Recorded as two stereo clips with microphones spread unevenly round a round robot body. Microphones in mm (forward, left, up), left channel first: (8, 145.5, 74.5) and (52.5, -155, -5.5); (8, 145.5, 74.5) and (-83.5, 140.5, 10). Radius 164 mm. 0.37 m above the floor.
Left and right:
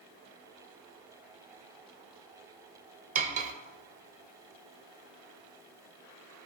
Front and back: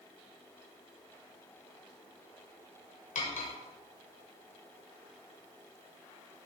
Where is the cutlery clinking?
30° right, 0.6 m.